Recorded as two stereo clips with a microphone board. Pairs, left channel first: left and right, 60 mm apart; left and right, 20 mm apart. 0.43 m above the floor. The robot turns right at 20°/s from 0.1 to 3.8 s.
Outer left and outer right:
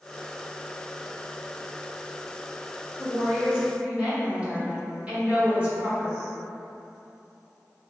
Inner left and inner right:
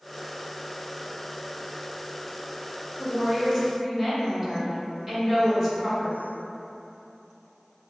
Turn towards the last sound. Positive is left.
turn(degrees=-25)  # may be behind; listen again after turning